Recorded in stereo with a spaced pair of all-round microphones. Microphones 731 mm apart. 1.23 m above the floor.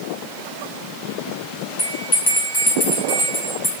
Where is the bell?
10° left (ahead or behind), 3 m.